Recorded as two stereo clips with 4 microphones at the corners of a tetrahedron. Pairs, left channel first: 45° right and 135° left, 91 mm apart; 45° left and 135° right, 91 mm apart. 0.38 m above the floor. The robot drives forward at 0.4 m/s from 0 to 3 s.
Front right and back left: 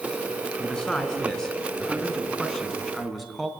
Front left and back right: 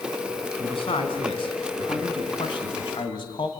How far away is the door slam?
No door slam in this recording.